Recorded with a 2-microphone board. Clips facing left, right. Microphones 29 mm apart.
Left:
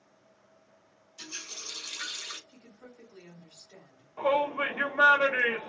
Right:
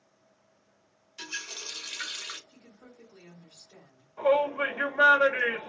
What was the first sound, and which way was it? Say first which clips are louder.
A running tap: right 4 dB; 50° right (ahead or behind).